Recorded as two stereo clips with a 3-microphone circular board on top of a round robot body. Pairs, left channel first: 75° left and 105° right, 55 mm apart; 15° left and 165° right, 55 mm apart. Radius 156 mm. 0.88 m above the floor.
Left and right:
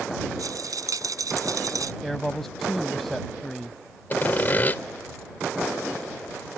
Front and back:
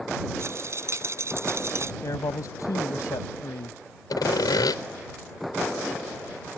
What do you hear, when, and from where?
0.4 s a rattle: 125° right
2.0 s a man speaking: 10° right
4.1 s sawing: 15° left